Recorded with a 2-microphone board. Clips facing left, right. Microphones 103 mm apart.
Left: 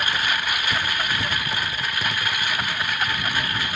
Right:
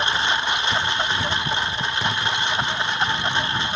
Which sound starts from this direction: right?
A lawn mower, at 0.0 s.